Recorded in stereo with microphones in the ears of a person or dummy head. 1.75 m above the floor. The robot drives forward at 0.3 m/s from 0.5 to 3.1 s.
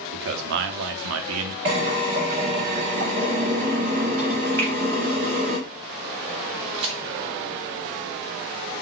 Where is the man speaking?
60° right (ahead or behind), 0.6 m; by 1.6 s 75° right (ahead or behind), 0.6 m.